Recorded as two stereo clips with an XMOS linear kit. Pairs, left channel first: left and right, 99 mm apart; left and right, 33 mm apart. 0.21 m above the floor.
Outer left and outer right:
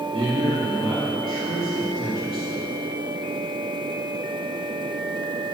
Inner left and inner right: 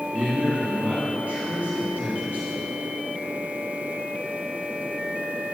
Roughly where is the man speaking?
Right.